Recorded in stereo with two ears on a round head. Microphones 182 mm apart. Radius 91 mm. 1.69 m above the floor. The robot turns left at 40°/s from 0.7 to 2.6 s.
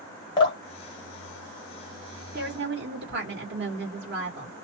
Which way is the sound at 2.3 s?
45° right (ahead or behind).